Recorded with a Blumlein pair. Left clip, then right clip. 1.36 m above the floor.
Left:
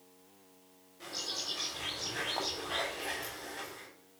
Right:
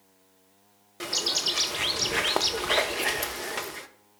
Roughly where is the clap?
I don't hear a clap.